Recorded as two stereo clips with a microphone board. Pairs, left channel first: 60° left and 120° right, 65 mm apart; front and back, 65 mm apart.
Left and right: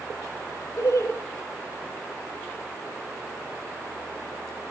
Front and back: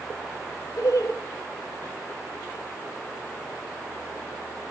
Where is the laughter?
25° left, 1.3 m.